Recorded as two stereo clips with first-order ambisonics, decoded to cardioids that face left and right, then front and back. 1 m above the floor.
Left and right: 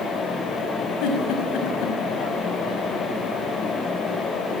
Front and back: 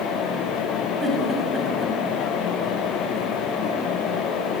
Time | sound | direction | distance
1.0 | a giggle | 100° left | 6 m